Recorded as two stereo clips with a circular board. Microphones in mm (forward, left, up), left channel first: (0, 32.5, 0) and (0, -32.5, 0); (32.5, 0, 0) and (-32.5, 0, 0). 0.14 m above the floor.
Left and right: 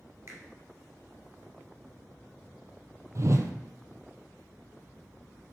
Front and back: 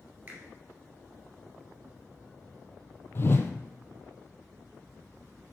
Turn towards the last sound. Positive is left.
turn(degrees=-50)